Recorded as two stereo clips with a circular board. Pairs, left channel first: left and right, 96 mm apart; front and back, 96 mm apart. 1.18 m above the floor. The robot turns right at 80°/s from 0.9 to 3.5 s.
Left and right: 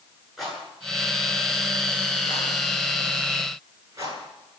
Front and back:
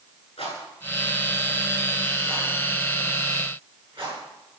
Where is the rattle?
Straight ahead, 9.5 m; by 4.2 s 150° right, 9.5 m.